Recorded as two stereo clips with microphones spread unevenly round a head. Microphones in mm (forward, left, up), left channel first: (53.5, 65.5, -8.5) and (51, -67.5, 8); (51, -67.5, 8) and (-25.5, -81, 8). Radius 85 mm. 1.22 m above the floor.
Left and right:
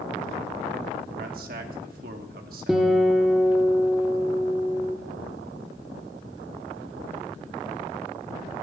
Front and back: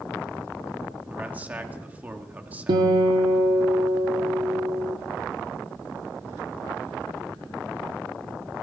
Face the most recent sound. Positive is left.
turn(degrees=-175)